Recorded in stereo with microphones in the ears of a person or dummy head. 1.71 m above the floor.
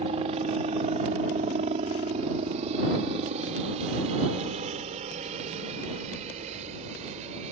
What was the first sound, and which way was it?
A helicopter, 35° right (ahead or behind).